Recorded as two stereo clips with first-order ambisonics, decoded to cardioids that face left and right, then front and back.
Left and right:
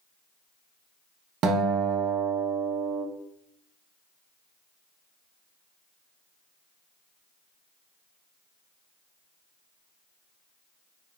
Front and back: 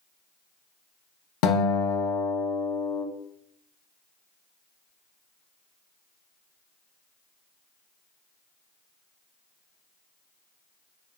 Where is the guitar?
35° right, 0.6 m.